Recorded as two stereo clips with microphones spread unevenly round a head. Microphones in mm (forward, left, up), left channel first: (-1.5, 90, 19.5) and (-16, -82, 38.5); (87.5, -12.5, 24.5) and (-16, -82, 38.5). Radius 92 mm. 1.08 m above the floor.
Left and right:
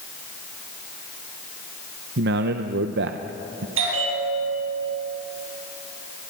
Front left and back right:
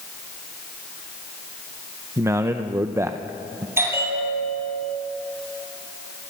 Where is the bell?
80° right, 7 m.